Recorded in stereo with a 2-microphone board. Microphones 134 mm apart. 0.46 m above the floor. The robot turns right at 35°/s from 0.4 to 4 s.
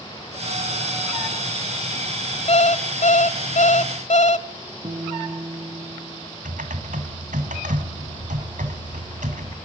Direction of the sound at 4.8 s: 50° right (ahead or behind).